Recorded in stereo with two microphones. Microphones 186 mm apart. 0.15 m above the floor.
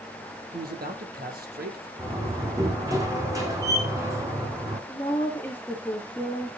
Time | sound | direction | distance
0.5 | a man speaking | 50° right (ahead or behind) | 3.5 m
2.0 | a door slam | 15° right (ahead or behind) | 6 m
4.9 | a woman speaking | 10° left (ahead or behind) | 3.5 m